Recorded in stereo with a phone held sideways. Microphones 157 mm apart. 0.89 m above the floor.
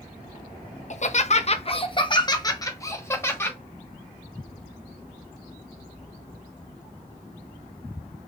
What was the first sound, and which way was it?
Laughter, 50° left (ahead or behind).